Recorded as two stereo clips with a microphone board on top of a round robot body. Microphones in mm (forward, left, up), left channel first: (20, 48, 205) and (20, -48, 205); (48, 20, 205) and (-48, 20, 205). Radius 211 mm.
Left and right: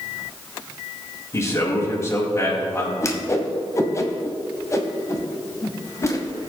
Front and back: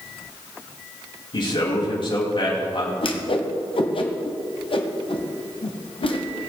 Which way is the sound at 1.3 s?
30° left.